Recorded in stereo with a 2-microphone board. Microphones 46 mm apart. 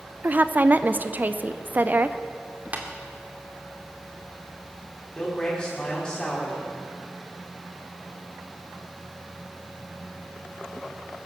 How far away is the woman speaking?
About 0.6 m.